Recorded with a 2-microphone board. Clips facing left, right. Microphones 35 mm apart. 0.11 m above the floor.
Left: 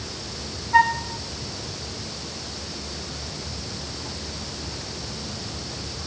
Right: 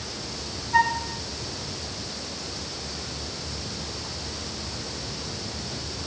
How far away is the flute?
About 1.8 m.